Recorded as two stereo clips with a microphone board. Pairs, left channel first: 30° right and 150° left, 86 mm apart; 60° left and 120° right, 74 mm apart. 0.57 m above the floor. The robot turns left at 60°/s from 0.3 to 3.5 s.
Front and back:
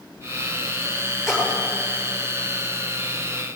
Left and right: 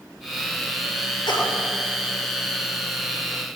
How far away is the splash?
About 8 m.